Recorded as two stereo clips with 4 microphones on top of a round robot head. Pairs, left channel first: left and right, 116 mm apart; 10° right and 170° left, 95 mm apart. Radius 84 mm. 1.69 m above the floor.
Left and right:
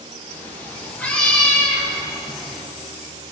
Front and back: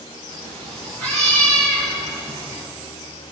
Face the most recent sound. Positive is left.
turn(degrees=180)